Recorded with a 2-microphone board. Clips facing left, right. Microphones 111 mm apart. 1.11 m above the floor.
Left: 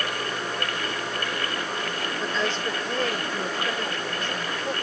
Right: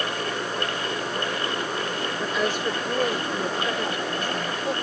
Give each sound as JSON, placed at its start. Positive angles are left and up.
{"t": 2.2, "sound": "a woman speaking", "side_deg": -15}